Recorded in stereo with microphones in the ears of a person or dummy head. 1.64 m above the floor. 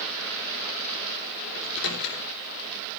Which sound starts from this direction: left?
A microwave, at 1.6 s.